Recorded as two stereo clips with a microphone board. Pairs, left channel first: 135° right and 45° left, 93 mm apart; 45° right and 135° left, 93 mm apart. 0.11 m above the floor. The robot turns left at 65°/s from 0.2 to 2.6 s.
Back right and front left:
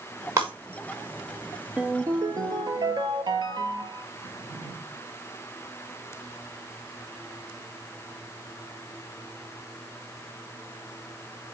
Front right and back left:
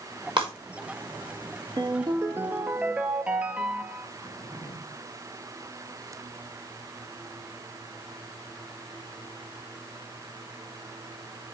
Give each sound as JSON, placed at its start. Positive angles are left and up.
{"t": 0.4, "sound": "breaking glass", "azimuth_deg": 105, "distance_m": 5.5}
{"t": 1.8, "sound": "a ringtone", "azimuth_deg": 115, "distance_m": 0.8}
{"t": 4.2, "sound": "a drawer", "azimuth_deg": -10, "distance_m": 5.5}